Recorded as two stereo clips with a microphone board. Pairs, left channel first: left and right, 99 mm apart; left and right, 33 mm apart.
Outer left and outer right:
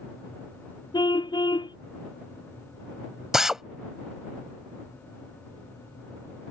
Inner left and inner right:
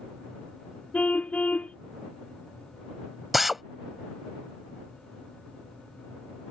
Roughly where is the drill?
Centre.